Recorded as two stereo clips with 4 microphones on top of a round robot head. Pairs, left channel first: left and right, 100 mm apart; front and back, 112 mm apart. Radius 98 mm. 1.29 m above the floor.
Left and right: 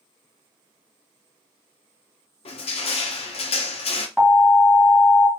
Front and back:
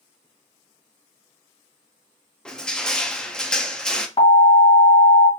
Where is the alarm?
10° right, 1.8 m.